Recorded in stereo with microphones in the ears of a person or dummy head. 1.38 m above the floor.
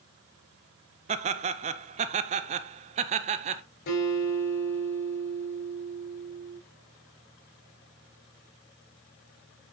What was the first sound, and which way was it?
Laughter, 35° right (ahead or behind).